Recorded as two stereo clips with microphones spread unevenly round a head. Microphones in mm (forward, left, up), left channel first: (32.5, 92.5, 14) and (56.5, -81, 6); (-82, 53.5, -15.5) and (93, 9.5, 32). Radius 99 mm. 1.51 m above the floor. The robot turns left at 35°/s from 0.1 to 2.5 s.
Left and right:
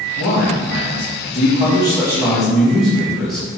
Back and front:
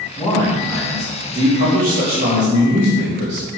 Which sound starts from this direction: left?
A man speaking, at 0.2 s.